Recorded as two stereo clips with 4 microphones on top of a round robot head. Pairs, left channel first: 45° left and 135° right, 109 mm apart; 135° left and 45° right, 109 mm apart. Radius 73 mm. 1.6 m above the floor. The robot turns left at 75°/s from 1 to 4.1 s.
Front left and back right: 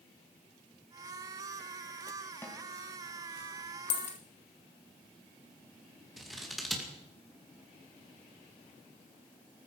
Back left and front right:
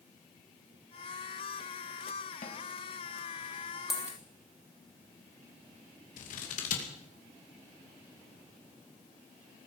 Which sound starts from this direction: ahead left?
A dropped coin, at 3.9 s.